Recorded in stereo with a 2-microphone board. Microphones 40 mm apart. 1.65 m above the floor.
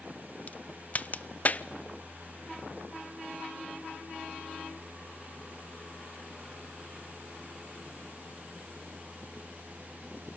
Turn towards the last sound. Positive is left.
turn(degrees=40)  # may be behind; listen again after turning